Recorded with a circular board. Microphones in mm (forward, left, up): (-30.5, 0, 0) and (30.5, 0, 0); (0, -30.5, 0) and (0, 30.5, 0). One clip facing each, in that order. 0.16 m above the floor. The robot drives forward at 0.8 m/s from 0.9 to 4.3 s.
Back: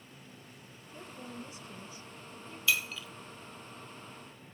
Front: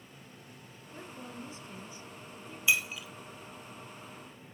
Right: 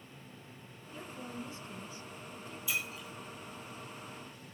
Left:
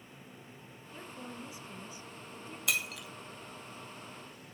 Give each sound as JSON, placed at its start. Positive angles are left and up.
{"t": 0.9, "sound": "a woman speaking", "azimuth_deg": 20, "distance_m": 2.0}
{"t": 2.7, "sound": "breaking glass", "azimuth_deg": 70, "distance_m": 2.0}